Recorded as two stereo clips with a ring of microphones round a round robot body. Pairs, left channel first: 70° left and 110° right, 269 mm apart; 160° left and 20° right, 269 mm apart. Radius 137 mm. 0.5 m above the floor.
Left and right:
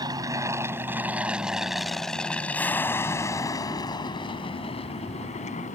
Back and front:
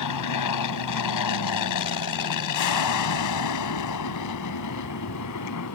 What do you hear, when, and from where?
0.0 s an aircraft: 170° left; by 5.8 s 130° left